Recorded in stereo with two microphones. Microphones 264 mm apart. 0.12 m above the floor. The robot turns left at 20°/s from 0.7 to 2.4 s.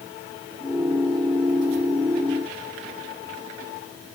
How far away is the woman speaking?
No woman speaking in this recording.